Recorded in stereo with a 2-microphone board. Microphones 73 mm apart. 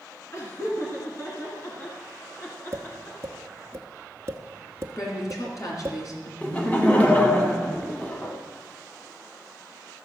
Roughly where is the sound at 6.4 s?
Left.